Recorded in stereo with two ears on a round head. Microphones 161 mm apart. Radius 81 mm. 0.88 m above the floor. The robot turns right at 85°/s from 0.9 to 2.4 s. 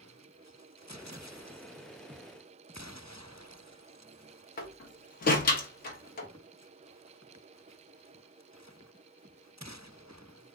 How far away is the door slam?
About 0.7 m.